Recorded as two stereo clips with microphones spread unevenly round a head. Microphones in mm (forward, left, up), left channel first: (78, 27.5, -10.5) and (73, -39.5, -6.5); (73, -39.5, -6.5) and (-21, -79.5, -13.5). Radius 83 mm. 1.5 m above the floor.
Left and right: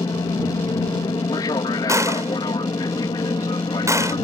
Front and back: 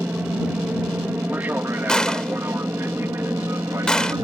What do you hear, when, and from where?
0.0 s an aircraft: 125° left; by 4.2 s 130° left
1.9 s a gunshot: 60° right